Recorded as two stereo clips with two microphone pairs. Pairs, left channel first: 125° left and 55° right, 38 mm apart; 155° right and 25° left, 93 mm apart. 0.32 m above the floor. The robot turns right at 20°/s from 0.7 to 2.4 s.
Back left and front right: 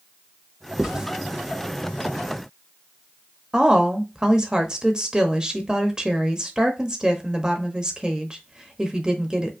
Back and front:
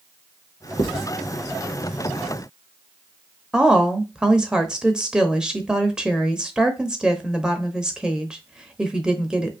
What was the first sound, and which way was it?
Writing, 130° right.